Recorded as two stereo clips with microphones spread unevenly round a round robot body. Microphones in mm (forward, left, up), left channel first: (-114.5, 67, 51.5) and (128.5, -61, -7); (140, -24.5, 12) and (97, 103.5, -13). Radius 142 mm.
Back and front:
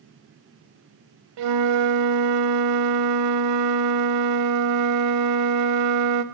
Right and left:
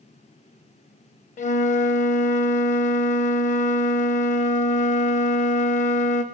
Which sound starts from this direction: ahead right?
A flute, at 1.4 s.